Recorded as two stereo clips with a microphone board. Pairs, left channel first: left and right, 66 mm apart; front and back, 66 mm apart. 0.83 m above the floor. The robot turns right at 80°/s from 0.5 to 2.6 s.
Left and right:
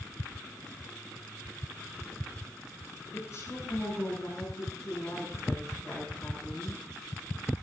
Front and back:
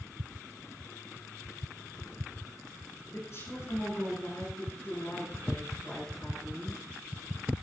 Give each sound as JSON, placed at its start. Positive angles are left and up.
{"t": 3.1, "sound": "a woman speaking", "azimuth_deg": 45, "distance_m": 9.0}